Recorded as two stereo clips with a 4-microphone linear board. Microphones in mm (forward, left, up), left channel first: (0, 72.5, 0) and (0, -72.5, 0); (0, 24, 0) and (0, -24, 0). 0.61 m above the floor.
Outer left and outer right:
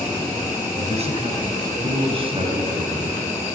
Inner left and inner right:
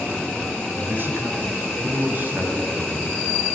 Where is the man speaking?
45° right (ahead or behind), 3.5 m; by 3.3 s 35° right (ahead or behind), 4.5 m.